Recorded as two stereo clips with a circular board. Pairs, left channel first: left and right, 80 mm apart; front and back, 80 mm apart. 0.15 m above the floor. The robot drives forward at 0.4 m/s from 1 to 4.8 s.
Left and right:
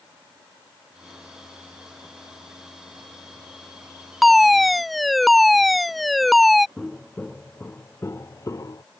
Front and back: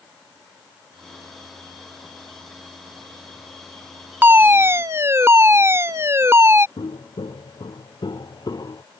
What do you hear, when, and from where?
4.2 s a fire alarm: straight behind
6.8 s footsteps: 10° left; by 8.8 s 45° left